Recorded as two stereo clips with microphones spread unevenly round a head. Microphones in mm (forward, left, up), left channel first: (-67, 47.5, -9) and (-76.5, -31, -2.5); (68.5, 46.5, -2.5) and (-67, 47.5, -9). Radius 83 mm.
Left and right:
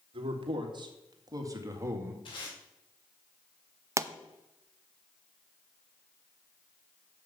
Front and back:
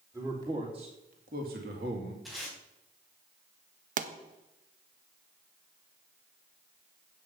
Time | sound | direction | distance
0.1 | a man speaking | 105° right | 2.5 m
2.2 | tape being pulled | 90° left | 4.5 m
4.0 | a pop | 145° right | 0.8 m